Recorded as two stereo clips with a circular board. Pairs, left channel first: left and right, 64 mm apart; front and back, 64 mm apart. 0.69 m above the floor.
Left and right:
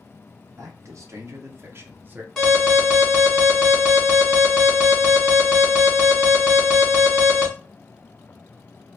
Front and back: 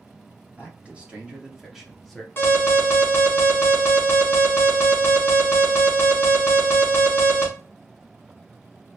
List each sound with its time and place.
0.6 s a man speaking: 115° right, 1.5 m; by 2.3 s 70° right, 0.8 m
2.4 s an alarm: 15° left, 1.7 m